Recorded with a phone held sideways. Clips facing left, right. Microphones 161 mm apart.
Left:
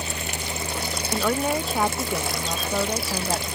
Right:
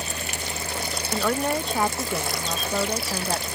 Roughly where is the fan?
Centre.